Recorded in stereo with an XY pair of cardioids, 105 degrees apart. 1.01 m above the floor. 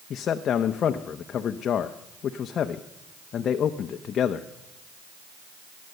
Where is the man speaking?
60° left, 0.7 m.